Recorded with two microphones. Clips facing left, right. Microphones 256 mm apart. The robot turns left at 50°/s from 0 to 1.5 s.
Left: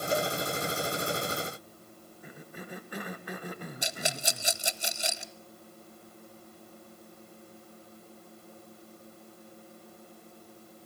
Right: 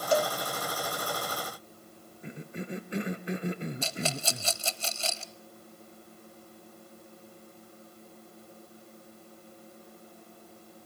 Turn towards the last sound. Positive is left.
turn(degrees=15)  # may be behind; listen again after turning